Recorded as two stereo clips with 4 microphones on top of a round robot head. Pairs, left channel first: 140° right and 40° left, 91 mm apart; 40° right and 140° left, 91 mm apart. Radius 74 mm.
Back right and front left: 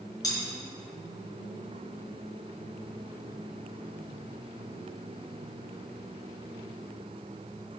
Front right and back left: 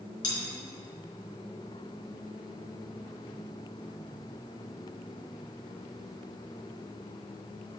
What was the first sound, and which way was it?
Cutlery clinking, 85° right.